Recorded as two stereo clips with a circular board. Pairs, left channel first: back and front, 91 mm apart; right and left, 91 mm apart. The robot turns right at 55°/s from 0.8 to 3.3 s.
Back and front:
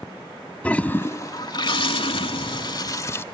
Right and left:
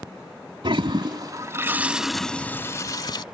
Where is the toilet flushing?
105° left; by 3.2 s 120° right.